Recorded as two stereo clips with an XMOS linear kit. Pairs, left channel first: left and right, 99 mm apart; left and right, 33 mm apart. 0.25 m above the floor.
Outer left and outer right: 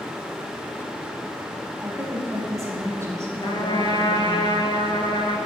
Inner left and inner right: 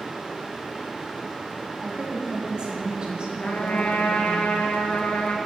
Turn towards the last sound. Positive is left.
turn(degrees=50)  # may be behind; listen again after turning